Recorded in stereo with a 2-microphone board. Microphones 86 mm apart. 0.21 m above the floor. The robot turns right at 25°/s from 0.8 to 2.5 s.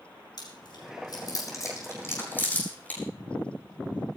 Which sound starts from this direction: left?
Chewing, at 0.4 s.